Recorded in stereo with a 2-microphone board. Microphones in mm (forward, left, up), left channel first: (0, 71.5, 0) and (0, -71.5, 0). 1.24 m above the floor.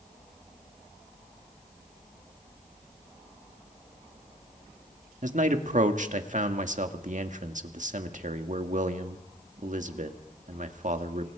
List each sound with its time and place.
5.2 s a man speaking: 60° right (ahead or behind), 2.0 m